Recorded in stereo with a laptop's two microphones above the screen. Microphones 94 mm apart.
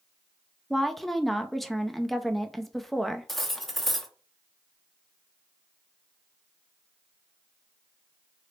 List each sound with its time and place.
0.7 s a woman speaking: centre (ahead or behind), 0.5 m
3.3 s cutlery clinking: centre (ahead or behind), 0.7 m